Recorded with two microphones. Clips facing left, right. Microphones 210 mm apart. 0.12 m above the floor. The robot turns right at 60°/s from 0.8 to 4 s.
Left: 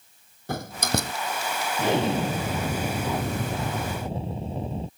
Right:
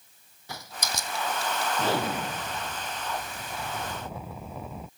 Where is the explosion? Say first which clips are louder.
Left 7 dB; 15° left; by 4.9 s 145° left.